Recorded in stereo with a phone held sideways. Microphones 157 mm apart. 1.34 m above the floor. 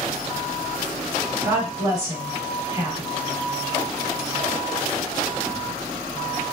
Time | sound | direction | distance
1.4 | a woman speaking | 25° right (ahead or behind) | 3.5 m